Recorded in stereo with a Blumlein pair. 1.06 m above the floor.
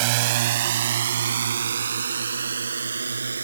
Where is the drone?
50° right; by 3.4 s 80° right.